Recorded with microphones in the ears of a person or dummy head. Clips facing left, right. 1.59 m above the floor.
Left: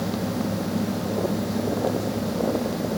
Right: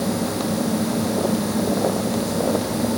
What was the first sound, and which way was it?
Only background noise.